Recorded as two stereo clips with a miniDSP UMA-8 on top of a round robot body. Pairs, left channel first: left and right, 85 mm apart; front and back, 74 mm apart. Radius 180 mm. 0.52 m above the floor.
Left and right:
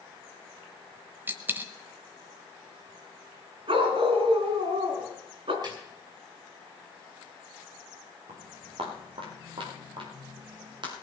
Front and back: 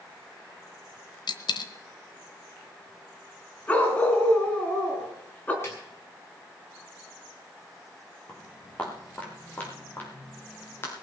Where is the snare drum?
55° right, 7 m.